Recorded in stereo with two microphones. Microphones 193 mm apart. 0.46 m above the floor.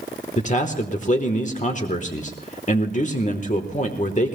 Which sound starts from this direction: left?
A man speaking, at 0.4 s.